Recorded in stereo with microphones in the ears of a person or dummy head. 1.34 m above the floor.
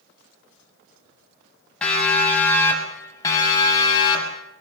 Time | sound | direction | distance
1.8 | a siren | 5° left (ahead or behind) | 7.5 m